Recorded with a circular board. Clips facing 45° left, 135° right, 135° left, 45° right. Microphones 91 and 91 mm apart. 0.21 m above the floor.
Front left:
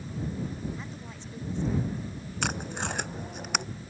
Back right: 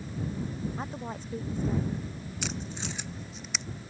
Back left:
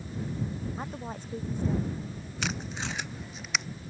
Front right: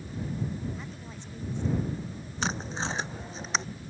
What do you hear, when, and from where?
0.8 s a woman speaking: straight behind
2.4 s tape being pulled: 10° left